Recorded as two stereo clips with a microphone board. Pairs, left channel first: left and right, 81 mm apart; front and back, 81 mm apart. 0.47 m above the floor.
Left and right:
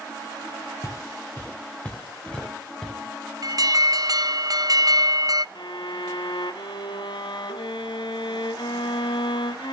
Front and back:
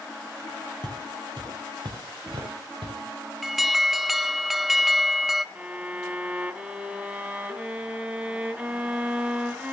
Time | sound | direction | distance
0.8 | footsteps | 145° left | 2.5 m
3.4 | an alarm | 95° right | 0.5 m
5.5 | a violin | 105° left | 0.8 m